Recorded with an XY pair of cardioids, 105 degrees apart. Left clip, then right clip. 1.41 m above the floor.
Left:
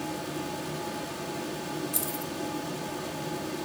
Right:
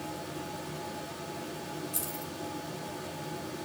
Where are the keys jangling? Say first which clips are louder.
Left 5 dB; 40° left, 2.5 m.